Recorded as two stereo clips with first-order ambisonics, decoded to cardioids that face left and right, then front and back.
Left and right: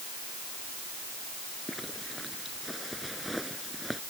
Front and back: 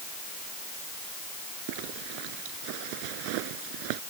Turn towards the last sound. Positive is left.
turn(degrees=180)